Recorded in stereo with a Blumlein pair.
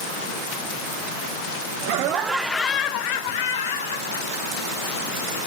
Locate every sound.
1.8 s laughter: 50° right, 0.7 m; by 5.3 s 75° left, 2.5 m